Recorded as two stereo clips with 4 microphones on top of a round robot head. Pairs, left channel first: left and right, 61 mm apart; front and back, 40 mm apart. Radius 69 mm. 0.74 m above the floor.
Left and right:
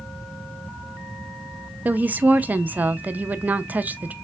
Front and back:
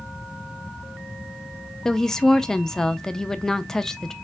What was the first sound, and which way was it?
A woman speaking, 60° right.